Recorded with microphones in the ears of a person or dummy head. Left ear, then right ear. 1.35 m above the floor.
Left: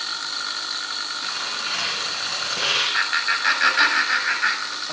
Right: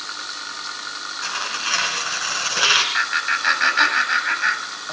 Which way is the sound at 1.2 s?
55° right (ahead or behind).